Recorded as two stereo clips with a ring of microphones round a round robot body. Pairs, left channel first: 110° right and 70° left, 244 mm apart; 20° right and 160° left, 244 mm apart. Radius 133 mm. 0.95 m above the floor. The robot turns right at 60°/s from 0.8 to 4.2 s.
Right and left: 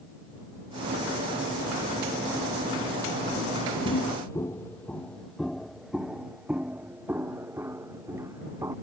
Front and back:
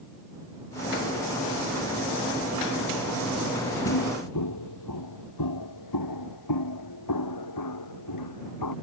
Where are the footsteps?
60° right; by 8.7 s 10° right.